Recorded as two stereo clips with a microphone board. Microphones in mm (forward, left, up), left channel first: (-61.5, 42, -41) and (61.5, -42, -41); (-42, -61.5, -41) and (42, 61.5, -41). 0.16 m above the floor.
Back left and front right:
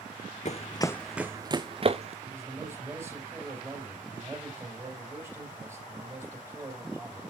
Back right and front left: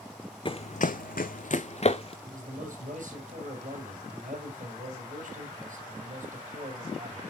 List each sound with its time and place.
0.5 s running footsteps: straight behind, 0.6 m; by 2.1 s 75° right, 1.1 m
2.2 s a man speaking: 40° left, 5 m